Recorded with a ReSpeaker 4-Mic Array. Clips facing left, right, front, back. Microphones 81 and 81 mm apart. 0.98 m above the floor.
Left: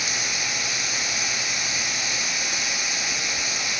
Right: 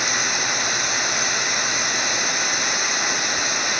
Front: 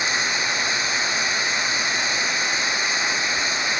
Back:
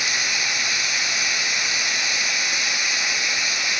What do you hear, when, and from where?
0.0 s running water: 60° right